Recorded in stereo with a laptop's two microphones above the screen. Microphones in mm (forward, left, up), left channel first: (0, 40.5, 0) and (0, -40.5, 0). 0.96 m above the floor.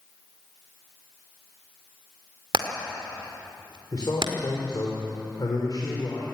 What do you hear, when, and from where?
2.5 s hammering: 75° right (ahead or behind), 2 m
3.9 s a man speaking: 55° left (ahead or behind), 3.5 m